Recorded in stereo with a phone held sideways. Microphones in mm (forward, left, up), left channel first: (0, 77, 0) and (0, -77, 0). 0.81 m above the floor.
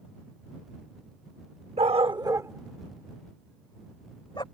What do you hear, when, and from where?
1.8 s a dog barking: 45° right (ahead or behind); by 4.4 s 30° left (ahead or behind)